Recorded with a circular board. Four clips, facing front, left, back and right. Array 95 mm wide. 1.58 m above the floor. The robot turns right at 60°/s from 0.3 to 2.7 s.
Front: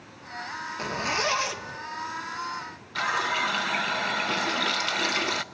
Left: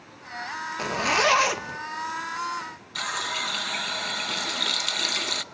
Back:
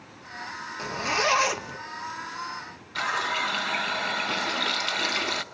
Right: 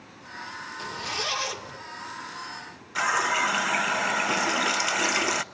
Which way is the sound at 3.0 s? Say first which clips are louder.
Right 7 dB, front 1 dB; 80° right.